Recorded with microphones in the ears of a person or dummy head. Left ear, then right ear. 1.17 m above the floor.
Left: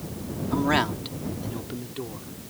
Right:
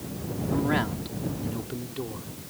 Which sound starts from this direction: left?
A man speaking, at 0.5 s.